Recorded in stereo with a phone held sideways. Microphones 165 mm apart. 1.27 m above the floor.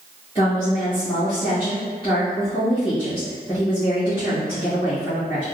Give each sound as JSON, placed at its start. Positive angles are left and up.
{"t": 0.3, "sound": "a woman speaking", "side_deg": 25, "distance_m": 1.6}